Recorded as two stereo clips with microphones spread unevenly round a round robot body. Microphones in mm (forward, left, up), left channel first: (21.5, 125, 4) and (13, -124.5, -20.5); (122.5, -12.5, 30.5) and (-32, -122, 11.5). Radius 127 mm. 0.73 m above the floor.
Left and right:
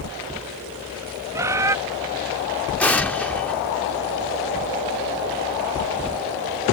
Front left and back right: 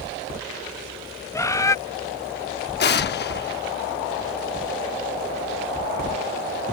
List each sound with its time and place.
1.3 s a bird: 35° right
2.8 s an explosion: straight ahead